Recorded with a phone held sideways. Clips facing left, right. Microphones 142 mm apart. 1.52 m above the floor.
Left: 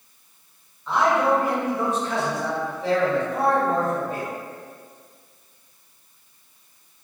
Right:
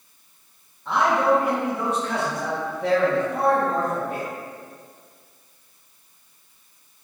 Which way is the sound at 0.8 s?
65° right (ahead or behind).